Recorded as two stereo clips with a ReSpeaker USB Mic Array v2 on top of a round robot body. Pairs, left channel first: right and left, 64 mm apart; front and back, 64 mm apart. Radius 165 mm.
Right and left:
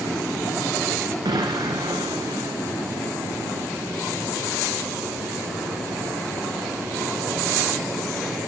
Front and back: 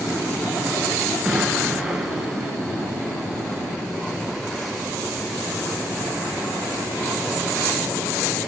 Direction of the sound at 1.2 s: 95° left.